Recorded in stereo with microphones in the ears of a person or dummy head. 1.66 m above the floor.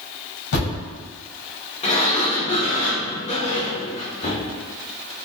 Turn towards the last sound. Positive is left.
turn(degrees=30)  # may be behind; listen again after turning